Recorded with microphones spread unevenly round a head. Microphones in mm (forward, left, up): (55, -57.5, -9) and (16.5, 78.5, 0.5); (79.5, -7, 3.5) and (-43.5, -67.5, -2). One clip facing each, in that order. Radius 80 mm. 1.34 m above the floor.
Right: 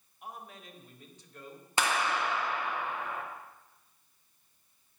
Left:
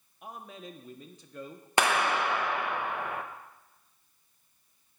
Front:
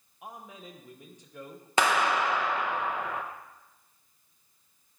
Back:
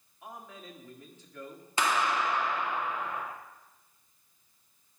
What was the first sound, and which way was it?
A man speaking, 105° left.